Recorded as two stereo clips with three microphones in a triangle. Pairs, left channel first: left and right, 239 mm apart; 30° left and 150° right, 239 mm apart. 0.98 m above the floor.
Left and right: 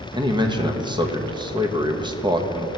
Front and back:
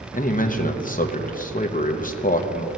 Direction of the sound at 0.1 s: 25° right.